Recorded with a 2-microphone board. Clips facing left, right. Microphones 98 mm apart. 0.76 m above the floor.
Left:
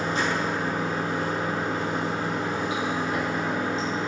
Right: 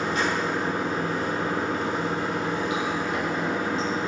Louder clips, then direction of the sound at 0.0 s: Even; 30° left (ahead or behind).